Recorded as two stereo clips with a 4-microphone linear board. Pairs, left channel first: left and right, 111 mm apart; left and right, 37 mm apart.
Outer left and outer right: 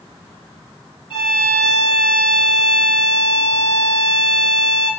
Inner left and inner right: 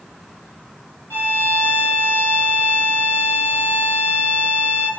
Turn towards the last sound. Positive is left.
turn(degrees=50)  # may be behind; listen again after turning